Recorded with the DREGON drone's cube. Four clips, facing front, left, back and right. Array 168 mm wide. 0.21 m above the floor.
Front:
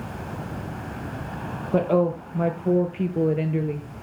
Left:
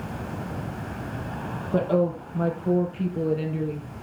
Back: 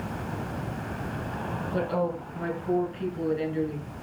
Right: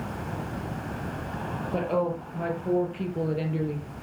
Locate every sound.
1.7 s a woman speaking: 15° left, 4.5 m; by 3.9 s 10° right, 3.5 m